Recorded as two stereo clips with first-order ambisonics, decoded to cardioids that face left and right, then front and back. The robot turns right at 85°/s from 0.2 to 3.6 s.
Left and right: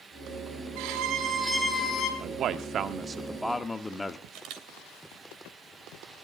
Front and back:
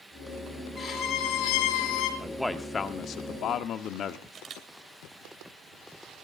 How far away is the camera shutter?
About 2.5 m.